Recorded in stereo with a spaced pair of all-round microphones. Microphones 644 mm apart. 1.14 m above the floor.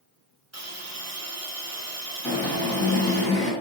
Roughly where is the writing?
I don't hear writing.